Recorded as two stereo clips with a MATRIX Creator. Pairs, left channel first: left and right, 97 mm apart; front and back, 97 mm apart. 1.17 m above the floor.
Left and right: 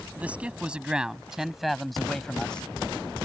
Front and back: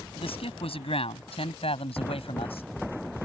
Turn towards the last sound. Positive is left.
turn(degrees=10)